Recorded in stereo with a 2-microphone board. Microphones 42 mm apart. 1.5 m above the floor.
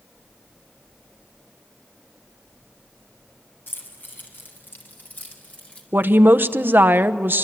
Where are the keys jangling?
60° left (ahead or behind), 6 m; by 5.8 s 35° left (ahead or behind), 4 m.